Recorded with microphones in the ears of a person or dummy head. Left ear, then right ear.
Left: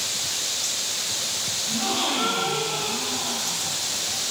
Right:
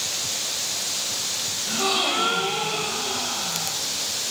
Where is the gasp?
55° right (ahead or behind), 1.7 m.